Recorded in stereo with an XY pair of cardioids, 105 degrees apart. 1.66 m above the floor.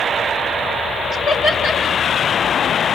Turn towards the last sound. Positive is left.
turn(degrees=55)